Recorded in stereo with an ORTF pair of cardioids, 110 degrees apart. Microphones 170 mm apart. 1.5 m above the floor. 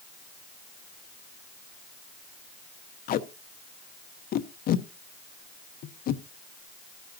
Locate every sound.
3.1 s tape being pulled: 60° left, 0.9 m